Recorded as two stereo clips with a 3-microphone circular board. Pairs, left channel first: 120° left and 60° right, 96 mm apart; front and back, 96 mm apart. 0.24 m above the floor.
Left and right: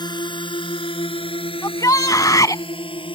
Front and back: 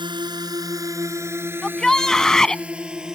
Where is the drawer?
I don't hear a drawer.